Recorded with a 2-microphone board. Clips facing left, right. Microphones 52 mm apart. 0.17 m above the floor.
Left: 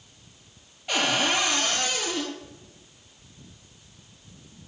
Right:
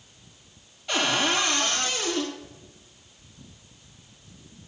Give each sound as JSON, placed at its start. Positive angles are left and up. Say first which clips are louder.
{"t": 0.9, "sound": "a cupboard door", "louder": "even", "side_deg": 20, "distance_m": 2.0}